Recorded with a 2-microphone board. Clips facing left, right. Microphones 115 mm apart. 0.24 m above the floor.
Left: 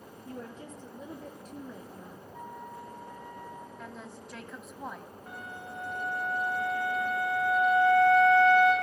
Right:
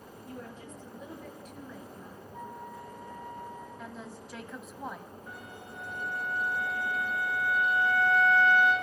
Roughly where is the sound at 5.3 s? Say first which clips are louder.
Left 6 dB; left.